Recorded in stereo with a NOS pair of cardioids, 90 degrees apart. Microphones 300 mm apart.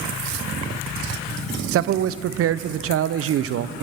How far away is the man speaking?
About 0.6 m.